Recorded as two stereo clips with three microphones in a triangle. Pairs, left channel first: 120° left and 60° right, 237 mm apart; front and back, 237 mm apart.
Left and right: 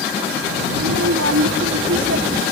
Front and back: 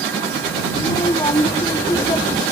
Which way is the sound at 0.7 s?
70° right.